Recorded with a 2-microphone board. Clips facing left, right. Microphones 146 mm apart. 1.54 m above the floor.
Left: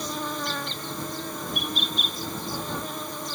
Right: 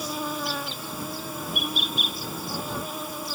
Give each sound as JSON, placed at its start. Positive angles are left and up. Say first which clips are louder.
{"t": 0.0, "sound": "an insect", "louder": "right 1 dB", "side_deg": -5}